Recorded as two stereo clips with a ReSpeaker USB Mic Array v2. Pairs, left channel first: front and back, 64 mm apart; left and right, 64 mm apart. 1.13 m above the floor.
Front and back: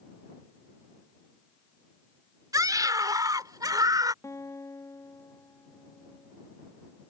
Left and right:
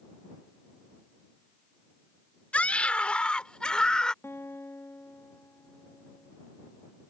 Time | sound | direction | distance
2.5 | a scream | 160° left | ?
4.2 | a guitar | 40° left | ?